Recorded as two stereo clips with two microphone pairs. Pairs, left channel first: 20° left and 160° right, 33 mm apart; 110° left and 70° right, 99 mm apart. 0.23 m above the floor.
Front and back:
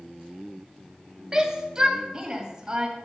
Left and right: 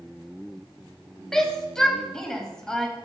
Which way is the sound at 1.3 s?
175° right.